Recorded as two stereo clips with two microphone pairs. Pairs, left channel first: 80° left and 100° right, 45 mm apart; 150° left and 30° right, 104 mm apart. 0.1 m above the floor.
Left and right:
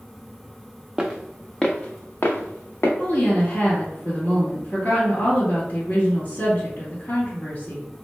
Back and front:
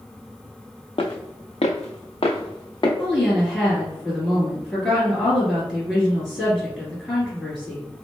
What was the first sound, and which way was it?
Footsteps, 175° right.